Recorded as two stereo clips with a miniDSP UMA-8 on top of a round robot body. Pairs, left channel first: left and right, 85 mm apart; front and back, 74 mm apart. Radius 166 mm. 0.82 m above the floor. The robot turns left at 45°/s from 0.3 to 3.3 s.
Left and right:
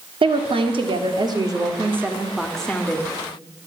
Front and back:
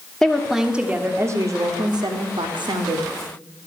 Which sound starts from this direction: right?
A woman speaking, at 0.2 s.